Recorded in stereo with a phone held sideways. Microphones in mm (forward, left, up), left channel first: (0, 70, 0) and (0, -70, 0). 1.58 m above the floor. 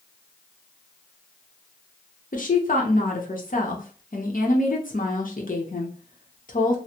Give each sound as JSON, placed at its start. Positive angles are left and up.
{"t": 2.3, "sound": "a woman speaking", "side_deg": 70, "distance_m": 0.9}